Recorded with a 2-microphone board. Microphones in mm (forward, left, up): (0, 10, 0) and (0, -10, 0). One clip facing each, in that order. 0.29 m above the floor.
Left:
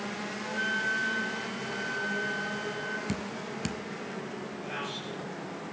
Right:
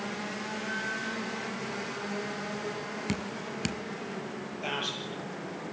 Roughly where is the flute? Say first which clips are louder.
Left 6 dB; left.